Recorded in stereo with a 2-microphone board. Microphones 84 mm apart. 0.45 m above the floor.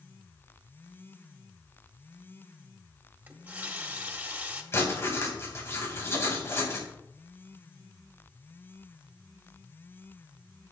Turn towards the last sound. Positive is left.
turn(degrees=30)  # may be behind; listen again after turning